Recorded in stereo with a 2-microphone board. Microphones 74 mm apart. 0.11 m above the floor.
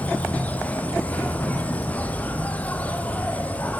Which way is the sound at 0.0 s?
20° left (ahead or behind).